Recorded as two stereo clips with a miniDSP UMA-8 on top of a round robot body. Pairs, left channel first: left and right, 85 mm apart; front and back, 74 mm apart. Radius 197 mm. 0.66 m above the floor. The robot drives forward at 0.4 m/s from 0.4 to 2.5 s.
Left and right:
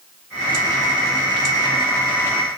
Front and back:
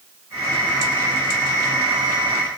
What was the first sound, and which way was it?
Only background noise.